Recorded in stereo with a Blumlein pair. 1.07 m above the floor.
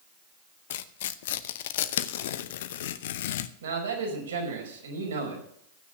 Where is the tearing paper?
55° left, 0.8 m.